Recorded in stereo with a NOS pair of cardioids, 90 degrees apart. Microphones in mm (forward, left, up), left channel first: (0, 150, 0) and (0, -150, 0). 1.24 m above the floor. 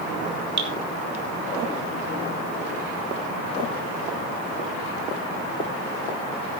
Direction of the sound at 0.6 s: 35° right.